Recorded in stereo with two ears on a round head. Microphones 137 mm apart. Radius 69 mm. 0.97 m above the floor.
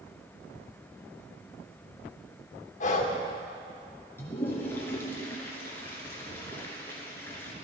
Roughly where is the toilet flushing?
Centre.